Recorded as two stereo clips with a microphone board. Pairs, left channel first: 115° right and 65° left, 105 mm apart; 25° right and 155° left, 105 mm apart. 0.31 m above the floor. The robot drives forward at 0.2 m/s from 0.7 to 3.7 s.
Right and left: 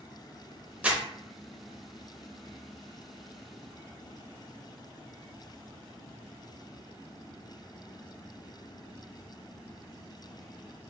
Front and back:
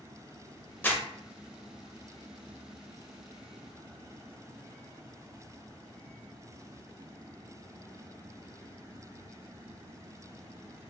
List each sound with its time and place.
0.8 s crumpling: 15° left, 0.6 m